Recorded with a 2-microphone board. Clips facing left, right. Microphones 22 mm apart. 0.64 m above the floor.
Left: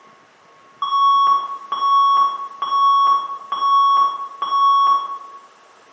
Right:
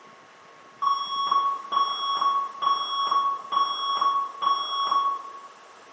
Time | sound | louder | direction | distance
0.8 | an alarm | left 11 dB | 55° left (ahead or behind) | 2 m